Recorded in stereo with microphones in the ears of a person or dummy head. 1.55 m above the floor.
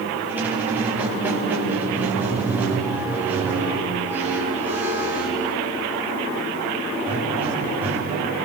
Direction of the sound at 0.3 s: 15° right (ahead or behind).